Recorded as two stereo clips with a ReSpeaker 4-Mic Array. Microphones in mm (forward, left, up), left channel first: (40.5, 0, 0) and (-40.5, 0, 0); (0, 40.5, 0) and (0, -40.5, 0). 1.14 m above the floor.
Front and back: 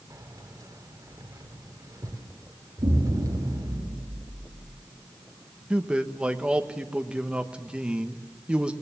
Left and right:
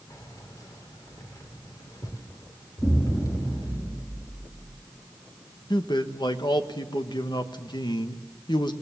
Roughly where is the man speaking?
Left.